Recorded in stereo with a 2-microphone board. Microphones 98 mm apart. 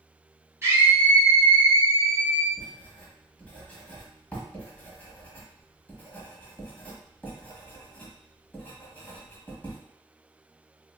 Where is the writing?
15° left (ahead or behind), 1.0 m.